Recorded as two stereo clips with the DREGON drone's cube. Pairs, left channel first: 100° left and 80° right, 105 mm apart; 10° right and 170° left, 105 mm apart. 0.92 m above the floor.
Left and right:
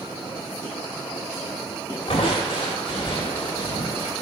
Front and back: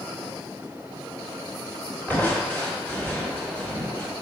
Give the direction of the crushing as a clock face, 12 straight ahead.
10 o'clock.